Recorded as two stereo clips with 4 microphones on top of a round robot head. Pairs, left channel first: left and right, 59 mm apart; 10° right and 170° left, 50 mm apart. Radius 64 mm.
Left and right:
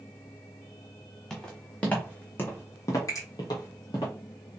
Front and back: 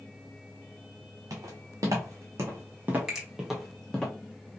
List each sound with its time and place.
1.3 s footsteps: 170° left, 1.6 m; by 4.1 s 65° left, 1.1 m
3.1 s a finger snap: 90° left, 2.5 m